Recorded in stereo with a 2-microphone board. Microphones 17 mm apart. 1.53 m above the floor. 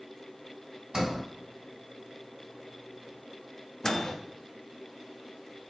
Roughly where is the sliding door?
Right.